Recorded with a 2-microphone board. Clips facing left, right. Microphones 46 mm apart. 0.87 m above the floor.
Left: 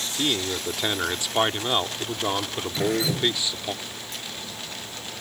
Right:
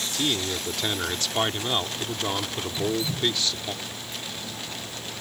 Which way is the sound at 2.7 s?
80° left.